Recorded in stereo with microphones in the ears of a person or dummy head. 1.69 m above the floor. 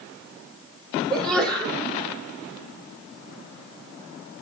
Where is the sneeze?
10° left (ahead or behind), 6 m.